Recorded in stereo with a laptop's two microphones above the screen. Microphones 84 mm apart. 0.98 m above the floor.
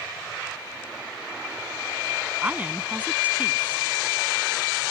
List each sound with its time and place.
2.4 s a woman speaking: 20° right (ahead or behind)